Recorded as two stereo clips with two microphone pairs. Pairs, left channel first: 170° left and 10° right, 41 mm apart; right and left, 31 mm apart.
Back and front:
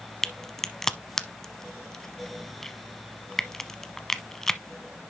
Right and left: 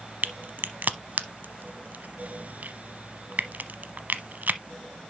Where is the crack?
90° left, 0.8 m.